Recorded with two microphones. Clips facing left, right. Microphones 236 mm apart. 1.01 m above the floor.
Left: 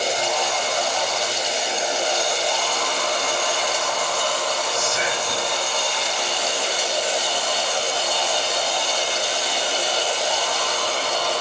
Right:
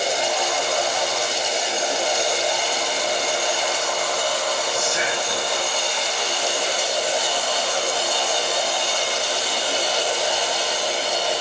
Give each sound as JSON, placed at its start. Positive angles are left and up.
{"t": 4.7, "sound": "whispering", "side_deg": 45, "distance_m": 4.5}